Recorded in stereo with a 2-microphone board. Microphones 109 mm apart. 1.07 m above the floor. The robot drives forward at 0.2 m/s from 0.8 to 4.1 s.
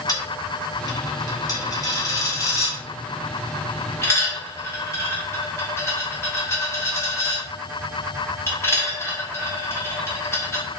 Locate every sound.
0.1 s a dropped coin: 40° left (ahead or behind), 0.7 m; by 10.6 s 25° left (ahead or behind), 1.0 m